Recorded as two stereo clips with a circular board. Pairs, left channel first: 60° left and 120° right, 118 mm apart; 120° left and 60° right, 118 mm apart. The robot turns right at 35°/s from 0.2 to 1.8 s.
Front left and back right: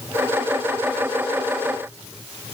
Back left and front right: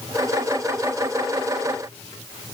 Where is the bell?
No bell in this recording.